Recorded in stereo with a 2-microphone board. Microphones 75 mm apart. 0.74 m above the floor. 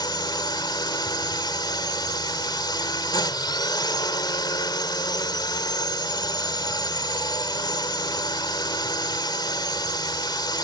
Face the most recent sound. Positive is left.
turn(degrees=75)  # may be behind; listen again after turning